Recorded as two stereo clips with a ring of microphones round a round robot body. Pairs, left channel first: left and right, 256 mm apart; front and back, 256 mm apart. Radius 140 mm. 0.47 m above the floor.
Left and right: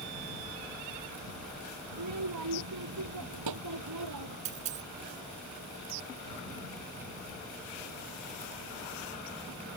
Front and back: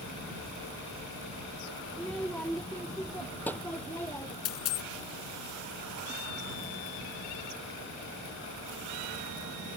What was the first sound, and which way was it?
A child speaking, 85° right.